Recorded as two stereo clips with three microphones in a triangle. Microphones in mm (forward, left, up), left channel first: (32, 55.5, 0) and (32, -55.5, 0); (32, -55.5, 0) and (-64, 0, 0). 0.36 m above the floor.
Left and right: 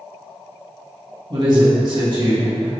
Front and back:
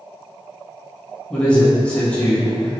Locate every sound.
1.3 s a man speaking: 105° right, 1.3 m